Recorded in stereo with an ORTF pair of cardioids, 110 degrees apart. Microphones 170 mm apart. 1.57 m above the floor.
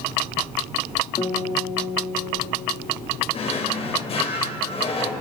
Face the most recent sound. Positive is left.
turn(degrees=35)